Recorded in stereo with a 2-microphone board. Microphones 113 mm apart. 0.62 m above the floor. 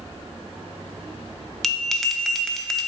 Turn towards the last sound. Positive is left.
turn(degrees=0)  # may be behind; listen again after turning